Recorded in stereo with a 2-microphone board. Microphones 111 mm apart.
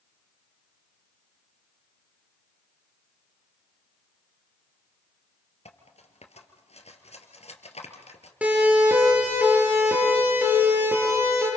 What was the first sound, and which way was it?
Cutlery clinking, 75° left (ahead or behind).